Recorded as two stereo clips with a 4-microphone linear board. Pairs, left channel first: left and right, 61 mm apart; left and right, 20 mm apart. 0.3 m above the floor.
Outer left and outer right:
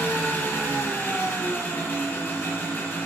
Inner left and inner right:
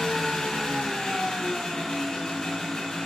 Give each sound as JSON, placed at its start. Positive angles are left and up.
{"t": 0.0, "sound": "an engine running", "side_deg": 30, "distance_m": 3.5}